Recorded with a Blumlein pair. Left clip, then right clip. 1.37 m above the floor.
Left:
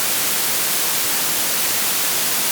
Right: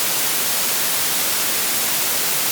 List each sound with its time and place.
Only background noise.